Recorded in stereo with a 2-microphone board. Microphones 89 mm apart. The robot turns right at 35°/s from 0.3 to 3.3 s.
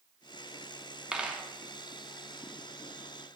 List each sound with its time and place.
1.1 s a dropped coin: 10° right (ahead or behind), 0.7 m; by 1.4 s 15° right (ahead or behind), 0.7 m